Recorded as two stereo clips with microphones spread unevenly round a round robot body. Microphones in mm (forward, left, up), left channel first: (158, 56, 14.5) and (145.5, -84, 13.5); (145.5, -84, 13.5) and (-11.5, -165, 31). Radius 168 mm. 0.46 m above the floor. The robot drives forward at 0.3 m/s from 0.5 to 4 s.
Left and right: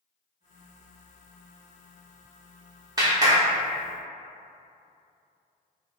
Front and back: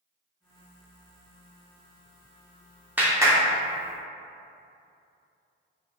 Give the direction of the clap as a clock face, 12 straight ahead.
2 o'clock.